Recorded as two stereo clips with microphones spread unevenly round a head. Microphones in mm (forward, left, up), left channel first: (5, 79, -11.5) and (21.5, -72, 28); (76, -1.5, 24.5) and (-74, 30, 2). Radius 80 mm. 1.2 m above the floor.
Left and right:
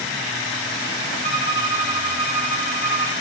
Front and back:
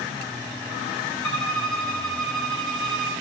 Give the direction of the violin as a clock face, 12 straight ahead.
9 o'clock.